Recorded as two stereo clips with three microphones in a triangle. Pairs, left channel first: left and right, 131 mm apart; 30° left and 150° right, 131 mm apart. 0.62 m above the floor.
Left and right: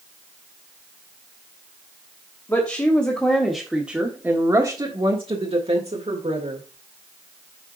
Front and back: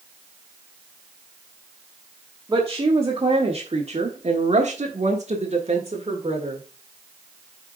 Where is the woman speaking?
155° left, 1.6 m; by 6.6 s 110° right, 1.9 m.